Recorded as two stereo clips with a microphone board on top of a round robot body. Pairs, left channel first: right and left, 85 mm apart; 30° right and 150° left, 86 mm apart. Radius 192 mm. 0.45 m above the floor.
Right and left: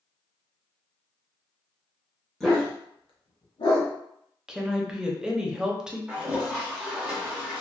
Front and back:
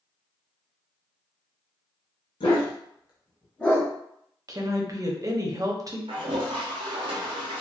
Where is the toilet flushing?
175° left, 0.5 m.